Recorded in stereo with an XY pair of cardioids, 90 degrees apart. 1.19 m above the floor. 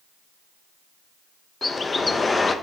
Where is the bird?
30° left, 0.8 m.